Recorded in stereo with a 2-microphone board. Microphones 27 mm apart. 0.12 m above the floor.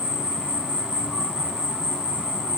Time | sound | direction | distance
0.0 | an insect | 20° right (ahead or behind) | 2.5 m